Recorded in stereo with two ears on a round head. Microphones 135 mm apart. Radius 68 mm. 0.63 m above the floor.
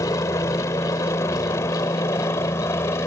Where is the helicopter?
20° left (ahead or behind); by 3.1 s 15° left (ahead or behind).